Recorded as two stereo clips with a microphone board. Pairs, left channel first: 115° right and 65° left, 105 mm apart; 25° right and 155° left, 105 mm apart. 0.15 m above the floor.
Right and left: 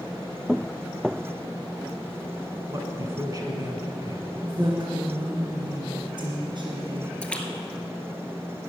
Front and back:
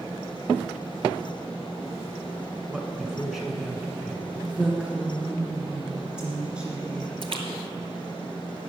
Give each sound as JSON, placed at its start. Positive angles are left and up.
{"t": 2.7, "sound": "a man speaking", "azimuth_deg": 70, "distance_m": 1.4}
{"t": 4.4, "sound": "a woman speaking", "azimuth_deg": 80, "distance_m": 2.0}
{"t": 7.2, "sound": "a splash", "azimuth_deg": 170, "distance_m": 1.2}